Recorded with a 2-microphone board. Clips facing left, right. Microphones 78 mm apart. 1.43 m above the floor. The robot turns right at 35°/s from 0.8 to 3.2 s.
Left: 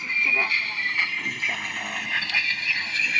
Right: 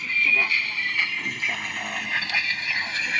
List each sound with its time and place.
0.0 s a vehicle: 20° left (ahead or behind); by 3.2 s 35° right (ahead or behind)